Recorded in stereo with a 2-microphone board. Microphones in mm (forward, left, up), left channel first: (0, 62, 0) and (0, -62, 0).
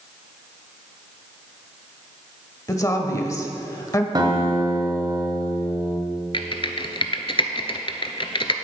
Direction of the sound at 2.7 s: 25° left (ahead or behind).